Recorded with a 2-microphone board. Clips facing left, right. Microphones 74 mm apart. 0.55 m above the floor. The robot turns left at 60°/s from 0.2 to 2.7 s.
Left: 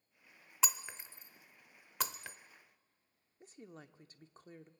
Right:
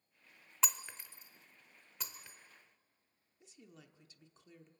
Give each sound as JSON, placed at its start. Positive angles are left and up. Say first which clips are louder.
{"t": 0.6, "sound": "breaking glass", "louder": "left 1 dB", "side_deg": 0, "distance_m": 0.6}
{"t": 3.4, "sound": "a woman speaking", "louder": "left 6 dB", "side_deg": 45, "distance_m": 1.0}